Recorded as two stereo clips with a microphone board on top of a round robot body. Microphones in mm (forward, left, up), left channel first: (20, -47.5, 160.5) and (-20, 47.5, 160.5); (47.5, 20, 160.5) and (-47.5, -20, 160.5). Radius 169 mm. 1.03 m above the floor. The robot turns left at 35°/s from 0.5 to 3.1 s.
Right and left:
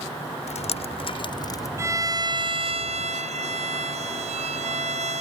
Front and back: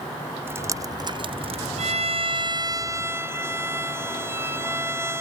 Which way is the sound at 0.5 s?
90° right.